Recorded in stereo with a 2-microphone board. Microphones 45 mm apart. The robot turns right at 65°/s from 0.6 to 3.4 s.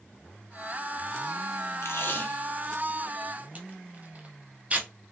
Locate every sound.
1.8 s tape being pulled: 70° left (ahead or behind), 0.8 m; by 4.9 s 35° right (ahead or behind), 0.8 m